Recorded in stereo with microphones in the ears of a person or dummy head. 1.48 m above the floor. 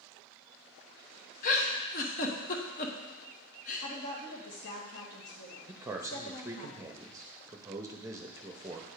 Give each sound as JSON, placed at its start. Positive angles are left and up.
{"t": 1.4, "sound": "a giggle", "side_deg": 50, "distance_m": 1.0}
{"t": 3.8, "sound": "a woman speaking", "side_deg": 60, "distance_m": 1.7}
{"t": 5.7, "sound": "a man speaking", "side_deg": -15, "distance_m": 0.8}